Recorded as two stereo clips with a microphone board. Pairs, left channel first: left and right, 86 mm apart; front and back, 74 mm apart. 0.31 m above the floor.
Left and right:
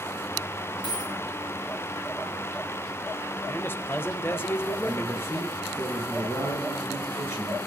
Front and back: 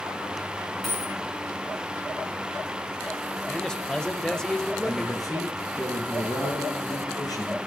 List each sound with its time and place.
0.8 s a dropped coin: 80° left, 8.5 m
3.5 s a man speaking: 70° left, 1.1 m
4.8 s a man speaking: 30° left, 6 m